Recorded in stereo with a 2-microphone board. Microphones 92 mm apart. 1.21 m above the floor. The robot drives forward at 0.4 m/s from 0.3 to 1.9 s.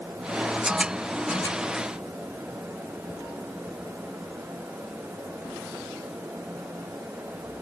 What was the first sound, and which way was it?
Only background noise.